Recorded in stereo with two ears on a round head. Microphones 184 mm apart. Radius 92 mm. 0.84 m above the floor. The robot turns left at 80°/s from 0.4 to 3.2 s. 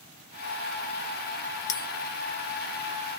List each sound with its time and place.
1.7 s a bell: 40° left (ahead or behind), 0.8 m; by 1.9 s 50° left (ahead or behind), 0.8 m